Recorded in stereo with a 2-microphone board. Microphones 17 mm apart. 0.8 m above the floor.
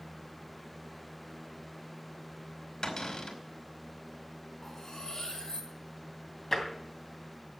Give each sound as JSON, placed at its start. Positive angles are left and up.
{"t": 2.8, "sound": "a cupboard door", "side_deg": 50, "distance_m": 2.5}
{"t": 4.6, "sound": "cutlery clinking", "side_deg": 45, "distance_m": 3.0}
{"t": 6.5, "sound": "tapping", "side_deg": 25, "distance_m": 2.5}